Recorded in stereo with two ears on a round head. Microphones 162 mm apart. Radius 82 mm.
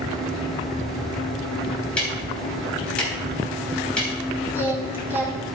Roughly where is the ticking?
Centre.